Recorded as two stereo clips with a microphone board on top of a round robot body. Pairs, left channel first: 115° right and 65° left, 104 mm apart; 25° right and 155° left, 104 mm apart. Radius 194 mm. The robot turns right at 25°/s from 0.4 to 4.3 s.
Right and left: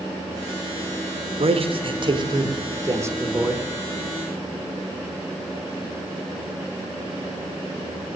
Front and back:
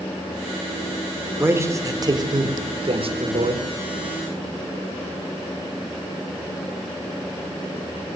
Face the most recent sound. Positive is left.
turn(degrees=160)